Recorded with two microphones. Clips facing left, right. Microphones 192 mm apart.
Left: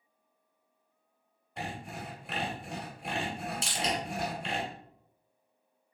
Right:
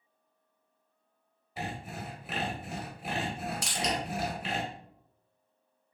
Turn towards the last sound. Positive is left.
turn(degrees=25)  # may be behind; listen again after turning